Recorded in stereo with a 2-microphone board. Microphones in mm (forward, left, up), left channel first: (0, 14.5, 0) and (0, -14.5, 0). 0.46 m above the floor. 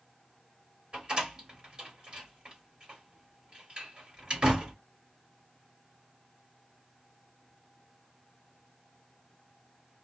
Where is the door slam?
30° right (ahead or behind), 1.6 m.